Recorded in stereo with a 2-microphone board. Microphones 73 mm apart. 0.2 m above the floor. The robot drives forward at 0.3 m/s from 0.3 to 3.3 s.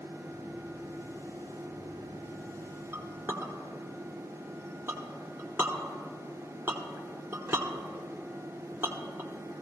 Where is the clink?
35° right (ahead or behind), 1.1 m; by 9.3 s 30° right (ahead or behind), 1.2 m.